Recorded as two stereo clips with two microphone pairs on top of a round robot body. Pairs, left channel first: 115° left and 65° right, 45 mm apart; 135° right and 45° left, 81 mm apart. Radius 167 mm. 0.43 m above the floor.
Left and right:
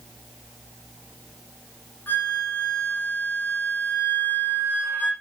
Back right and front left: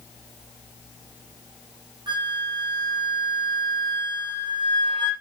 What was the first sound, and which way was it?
A flute, 65° left.